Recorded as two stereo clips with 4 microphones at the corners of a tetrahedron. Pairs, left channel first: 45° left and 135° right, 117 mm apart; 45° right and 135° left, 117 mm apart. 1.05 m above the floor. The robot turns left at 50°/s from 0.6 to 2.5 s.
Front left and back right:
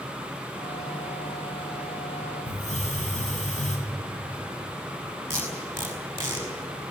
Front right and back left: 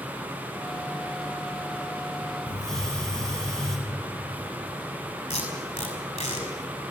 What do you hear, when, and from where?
2.5 s a hiss: 40° left, 4.5 m
5.3 s tape being pulled: 65° right, 5 m